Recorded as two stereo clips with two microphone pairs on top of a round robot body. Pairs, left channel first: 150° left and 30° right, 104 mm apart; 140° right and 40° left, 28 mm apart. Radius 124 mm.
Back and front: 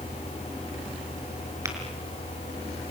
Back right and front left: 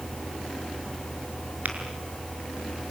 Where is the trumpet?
No trumpet in this recording.